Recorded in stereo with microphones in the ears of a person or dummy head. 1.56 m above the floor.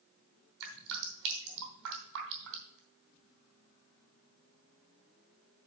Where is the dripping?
65° right (ahead or behind), 3 m.